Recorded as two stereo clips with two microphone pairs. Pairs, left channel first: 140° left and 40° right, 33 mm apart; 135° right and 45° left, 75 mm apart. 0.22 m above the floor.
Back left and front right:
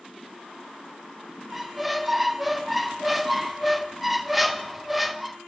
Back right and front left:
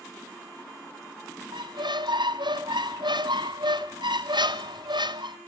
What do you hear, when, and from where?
1.5 s a squeak: 45° left, 1.3 m